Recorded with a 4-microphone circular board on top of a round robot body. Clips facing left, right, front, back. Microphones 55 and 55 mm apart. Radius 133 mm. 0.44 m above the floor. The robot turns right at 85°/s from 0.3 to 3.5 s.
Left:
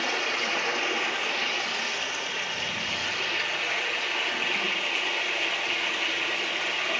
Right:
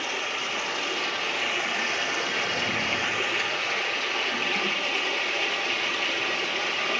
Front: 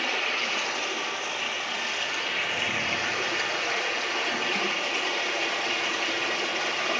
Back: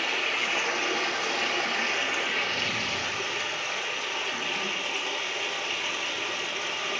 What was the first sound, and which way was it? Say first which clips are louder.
Running water: left 2 dB, even; 90° left.